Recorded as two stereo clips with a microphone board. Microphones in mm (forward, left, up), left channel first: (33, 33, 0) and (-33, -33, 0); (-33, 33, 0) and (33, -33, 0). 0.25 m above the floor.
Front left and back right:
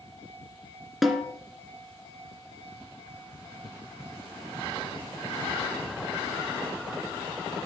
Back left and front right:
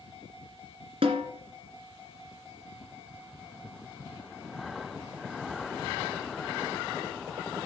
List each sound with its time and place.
1.0 s a snare drum: 45° right, 2 m